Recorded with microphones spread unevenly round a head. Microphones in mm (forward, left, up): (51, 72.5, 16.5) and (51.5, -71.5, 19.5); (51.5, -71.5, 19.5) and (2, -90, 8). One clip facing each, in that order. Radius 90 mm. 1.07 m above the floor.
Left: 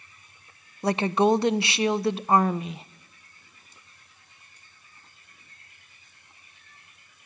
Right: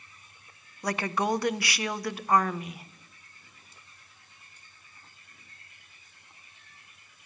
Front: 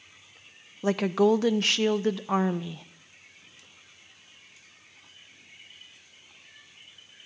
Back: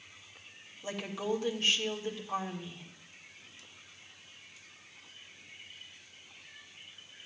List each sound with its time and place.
0.8 s a woman speaking: 30° left, 0.5 m